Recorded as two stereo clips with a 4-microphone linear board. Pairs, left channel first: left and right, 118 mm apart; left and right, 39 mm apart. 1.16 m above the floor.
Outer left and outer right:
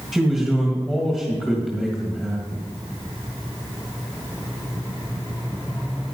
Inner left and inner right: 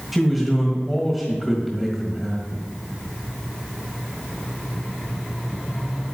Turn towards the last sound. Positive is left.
turn(degrees=5)  # may be behind; listen again after turning